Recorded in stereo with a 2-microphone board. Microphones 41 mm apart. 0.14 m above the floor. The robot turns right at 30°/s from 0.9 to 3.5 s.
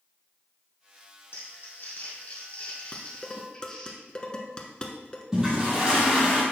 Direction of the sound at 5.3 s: 15° right (ahead or behind).